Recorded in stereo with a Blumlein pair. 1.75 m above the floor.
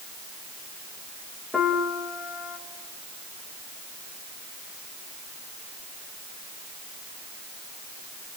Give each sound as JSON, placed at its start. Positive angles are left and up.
{"t": 1.5, "sound": "a piano", "azimuth_deg": 15, "distance_m": 2.5}